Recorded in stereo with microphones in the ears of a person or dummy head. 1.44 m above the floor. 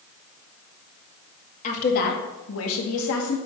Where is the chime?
I don't hear a chime.